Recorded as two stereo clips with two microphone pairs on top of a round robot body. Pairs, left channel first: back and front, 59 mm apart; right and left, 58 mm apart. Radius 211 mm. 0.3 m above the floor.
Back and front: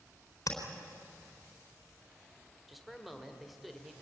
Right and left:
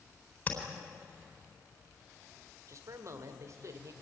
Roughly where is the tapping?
Behind right.